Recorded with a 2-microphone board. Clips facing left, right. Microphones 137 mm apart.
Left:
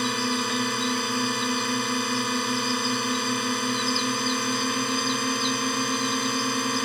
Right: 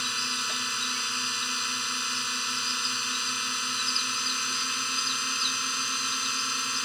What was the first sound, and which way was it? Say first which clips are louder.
A drone: left 12 dB; 55° left (ahead or behind).